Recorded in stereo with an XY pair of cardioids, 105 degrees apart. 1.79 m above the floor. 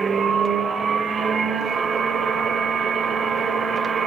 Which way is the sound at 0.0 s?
45° right.